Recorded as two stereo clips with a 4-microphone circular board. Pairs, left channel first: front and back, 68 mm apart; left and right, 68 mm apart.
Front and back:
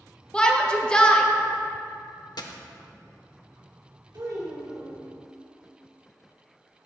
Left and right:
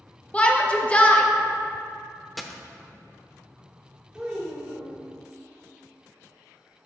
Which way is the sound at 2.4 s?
Straight ahead.